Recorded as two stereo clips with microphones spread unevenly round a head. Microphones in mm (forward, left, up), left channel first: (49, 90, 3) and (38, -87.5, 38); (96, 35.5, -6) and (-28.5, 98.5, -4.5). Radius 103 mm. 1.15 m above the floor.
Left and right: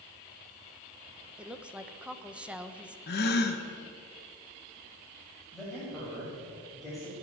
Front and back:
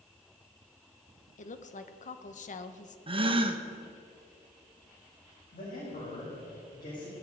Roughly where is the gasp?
Left.